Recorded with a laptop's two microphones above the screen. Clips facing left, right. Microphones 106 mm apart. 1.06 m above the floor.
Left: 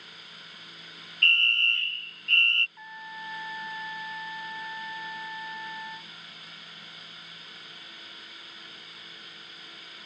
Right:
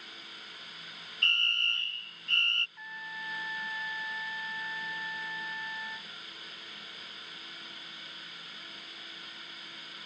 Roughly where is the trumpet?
Left.